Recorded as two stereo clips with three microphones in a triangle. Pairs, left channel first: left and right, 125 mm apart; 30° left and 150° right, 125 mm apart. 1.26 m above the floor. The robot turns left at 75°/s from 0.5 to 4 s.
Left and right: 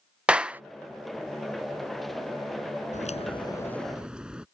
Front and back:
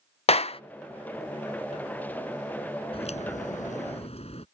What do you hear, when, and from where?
0.3 s a clap: 10° right; by 0.6 s 15° right
2.9 s a crack: 75° left; by 4.5 s 5° right